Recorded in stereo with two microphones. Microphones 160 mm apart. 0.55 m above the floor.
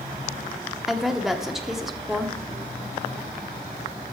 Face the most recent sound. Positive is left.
turn(degrees=0)  # may be behind; listen again after turning